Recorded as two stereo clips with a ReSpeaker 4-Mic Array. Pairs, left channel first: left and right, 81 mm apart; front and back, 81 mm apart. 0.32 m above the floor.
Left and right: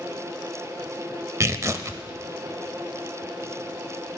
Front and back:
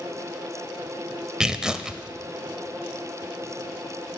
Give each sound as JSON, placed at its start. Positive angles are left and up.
{"t": 1.4, "sound": "tearing paper", "azimuth_deg": -105, "distance_m": 0.6}